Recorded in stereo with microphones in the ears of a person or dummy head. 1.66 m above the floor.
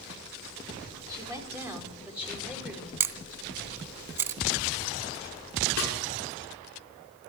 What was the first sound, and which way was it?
A woman speaking, 20° right (ahead or behind).